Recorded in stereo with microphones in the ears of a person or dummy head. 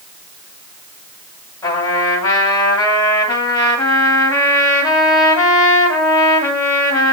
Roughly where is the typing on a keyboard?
I don't hear typing on a keyboard.